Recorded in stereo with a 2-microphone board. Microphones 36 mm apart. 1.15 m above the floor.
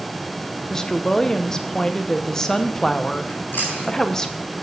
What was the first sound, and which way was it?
A woman speaking, 20° left (ahead or behind).